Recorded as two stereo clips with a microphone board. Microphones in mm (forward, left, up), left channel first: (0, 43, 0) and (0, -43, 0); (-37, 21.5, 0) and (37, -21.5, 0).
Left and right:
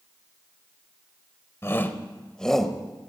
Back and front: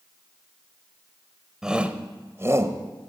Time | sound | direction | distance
1.6 | a shout | 50° left | 1.1 m